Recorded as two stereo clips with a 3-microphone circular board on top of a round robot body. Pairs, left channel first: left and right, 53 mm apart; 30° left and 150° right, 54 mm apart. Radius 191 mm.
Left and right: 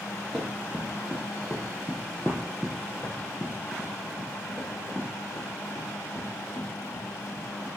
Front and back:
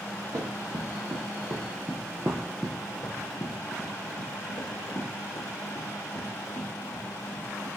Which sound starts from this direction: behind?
Running footsteps, at 0.3 s.